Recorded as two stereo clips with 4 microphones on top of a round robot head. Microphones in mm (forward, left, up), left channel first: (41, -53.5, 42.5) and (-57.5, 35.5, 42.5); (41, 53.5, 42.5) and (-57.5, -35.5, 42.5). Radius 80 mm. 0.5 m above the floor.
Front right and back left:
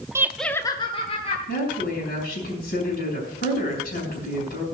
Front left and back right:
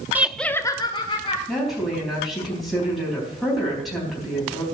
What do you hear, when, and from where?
0.1 s laughter: 170° left, 0.9 m; by 1.4 s 5° right, 1.8 m
1.5 s a woman speaking: 50° right, 4 m